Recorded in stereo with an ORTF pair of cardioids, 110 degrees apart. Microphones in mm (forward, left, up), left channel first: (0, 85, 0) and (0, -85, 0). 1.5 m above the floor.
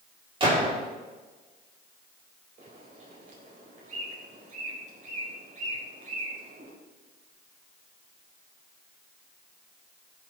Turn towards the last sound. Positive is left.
turn(degrees=-45)